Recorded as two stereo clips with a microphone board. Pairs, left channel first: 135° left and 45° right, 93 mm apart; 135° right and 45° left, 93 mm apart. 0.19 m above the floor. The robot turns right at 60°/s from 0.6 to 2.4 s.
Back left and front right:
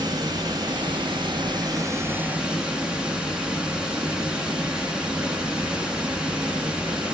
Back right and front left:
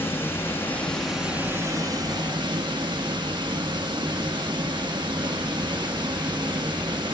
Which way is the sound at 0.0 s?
75° right.